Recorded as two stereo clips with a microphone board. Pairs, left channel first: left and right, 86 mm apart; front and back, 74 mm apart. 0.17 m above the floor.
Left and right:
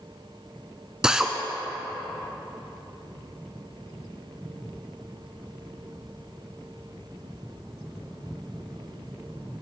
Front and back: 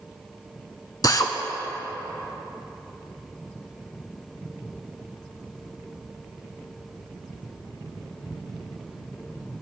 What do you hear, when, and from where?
1.0 s a drill: 10° right, 0.9 m